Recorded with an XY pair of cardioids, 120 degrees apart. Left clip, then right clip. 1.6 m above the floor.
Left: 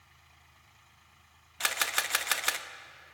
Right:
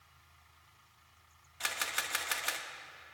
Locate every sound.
1.6 s a camera shutter: 40° left, 0.7 m